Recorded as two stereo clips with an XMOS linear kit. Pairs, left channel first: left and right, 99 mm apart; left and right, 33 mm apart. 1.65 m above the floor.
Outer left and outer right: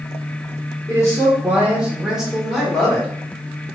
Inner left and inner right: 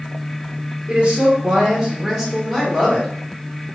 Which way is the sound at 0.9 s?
30° right (ahead or behind).